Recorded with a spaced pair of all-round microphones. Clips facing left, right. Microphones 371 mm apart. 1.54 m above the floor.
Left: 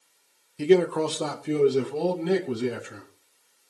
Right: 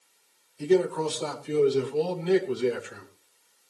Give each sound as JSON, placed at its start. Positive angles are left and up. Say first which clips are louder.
{"t": 0.6, "sound": "a man speaking", "louder": "left 3 dB", "side_deg": 85, "distance_m": 1.4}